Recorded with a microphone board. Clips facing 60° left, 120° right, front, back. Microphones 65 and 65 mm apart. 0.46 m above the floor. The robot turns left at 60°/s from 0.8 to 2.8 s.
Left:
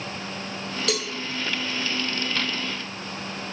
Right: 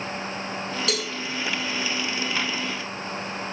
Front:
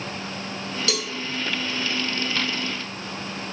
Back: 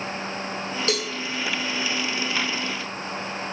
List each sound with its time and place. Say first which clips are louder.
0.9 s a cowbell: left 3 dB, back 3 dB; 150° left, 1.0 m; by 1.1 s 140° left, 1.0 m